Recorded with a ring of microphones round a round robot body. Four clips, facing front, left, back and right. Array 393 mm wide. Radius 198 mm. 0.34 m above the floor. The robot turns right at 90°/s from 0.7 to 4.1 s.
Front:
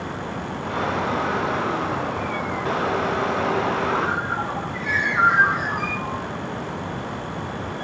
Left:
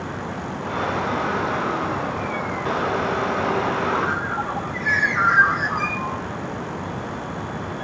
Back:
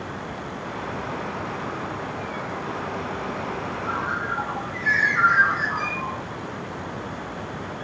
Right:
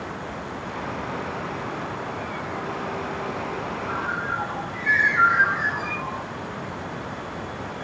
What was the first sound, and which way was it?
A bird, 90° left.